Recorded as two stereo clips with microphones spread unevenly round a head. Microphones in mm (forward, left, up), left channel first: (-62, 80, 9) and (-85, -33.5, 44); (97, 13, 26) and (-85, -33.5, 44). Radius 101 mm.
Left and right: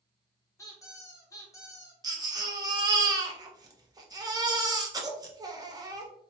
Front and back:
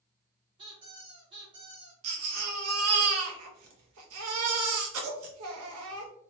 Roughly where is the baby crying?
Behind.